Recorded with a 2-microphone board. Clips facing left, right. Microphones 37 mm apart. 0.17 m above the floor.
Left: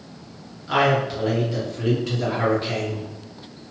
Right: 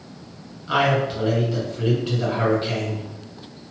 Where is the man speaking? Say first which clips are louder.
Even; 20° right (ahead or behind), 1.9 m.